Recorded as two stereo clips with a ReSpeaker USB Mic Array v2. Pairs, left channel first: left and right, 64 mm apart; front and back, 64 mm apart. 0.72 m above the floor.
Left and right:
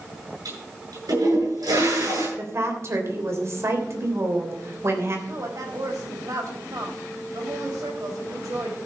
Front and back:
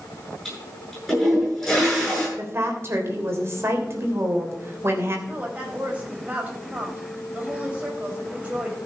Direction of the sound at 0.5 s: 90° right.